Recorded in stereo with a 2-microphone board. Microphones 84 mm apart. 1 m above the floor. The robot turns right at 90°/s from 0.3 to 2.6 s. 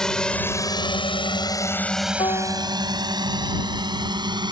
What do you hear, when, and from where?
0.0 s a drone: 5° left (ahead or behind); by 4.5 s 60° right (ahead or behind)
2.2 s a piano: 105° left; by 2.8 s 145° left